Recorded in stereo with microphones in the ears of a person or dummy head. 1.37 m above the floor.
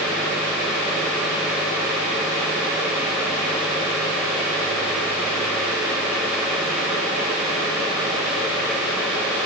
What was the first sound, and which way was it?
Only background noise.